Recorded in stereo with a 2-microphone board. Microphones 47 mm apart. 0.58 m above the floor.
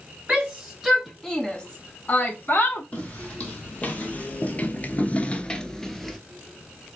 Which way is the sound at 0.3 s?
25° right (ahead or behind).